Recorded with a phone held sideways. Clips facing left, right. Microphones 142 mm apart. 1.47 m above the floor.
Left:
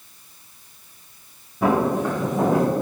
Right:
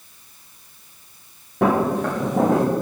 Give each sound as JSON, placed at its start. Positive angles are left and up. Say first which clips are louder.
{"t": 1.6, "sound": "footsteps", "louder": "right 1 dB", "side_deg": -70, "distance_m": 4.0}